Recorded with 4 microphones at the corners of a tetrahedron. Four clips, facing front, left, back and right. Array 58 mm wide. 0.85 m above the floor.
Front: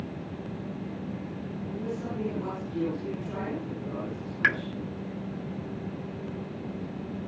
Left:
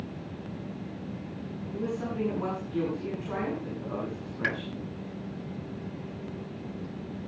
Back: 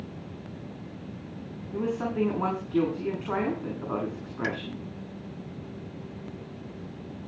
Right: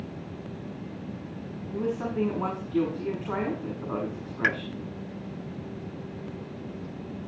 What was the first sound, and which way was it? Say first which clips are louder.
A woman speaking: right 4 dB, back 7 dB; 160° right.